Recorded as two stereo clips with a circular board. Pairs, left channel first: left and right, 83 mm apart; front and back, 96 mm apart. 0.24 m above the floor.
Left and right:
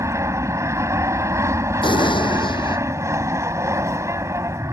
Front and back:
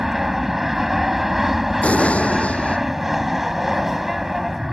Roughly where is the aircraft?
Right.